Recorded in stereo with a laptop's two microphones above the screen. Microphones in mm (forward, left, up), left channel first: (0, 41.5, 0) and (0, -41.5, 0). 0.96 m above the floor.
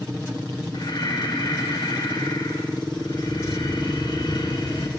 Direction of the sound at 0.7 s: 65° left (ahead or behind).